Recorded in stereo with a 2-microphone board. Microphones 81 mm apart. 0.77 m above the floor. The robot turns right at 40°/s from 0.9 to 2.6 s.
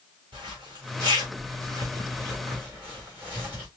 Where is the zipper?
80° right, 3.5 m; by 3.7 s 25° right (ahead or behind), 3.5 m.